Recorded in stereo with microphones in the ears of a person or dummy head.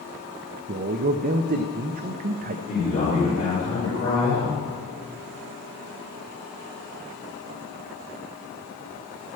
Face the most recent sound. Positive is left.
turn(degrees=30)  # may be behind; listen again after turning